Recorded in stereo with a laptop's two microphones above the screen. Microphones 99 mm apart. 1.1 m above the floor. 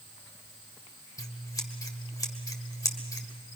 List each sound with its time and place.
1.2 s scissors: 35° left (ahead or behind), 1.8 m